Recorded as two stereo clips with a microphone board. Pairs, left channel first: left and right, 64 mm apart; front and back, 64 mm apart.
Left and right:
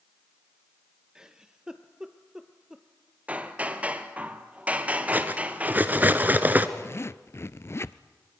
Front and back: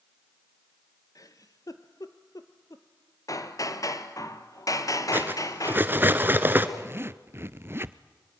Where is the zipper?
130° left, 0.5 m.